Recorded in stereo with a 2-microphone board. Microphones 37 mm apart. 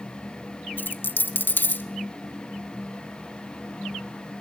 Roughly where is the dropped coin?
Left.